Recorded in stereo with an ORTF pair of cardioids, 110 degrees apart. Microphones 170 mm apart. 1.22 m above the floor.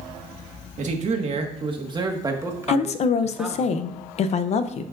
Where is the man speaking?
50° right, 1.6 m; by 3.7 s straight ahead, 2.0 m.